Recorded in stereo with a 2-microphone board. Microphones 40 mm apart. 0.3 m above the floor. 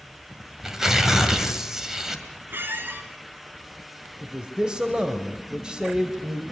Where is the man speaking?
20° right (ahead or behind), 1.5 m.